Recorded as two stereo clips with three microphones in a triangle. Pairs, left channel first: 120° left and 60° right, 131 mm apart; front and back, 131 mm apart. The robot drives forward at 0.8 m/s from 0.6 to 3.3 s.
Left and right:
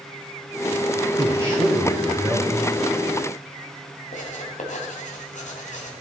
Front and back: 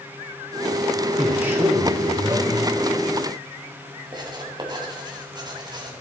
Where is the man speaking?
95° right, 1.2 m; by 2.5 s 150° right, 1.7 m.